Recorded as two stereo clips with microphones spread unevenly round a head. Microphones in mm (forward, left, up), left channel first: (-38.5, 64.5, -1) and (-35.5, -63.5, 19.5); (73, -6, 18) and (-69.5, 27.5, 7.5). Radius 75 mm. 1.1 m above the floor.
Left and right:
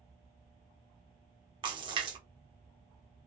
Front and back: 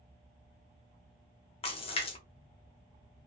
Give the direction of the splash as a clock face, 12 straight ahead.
1 o'clock.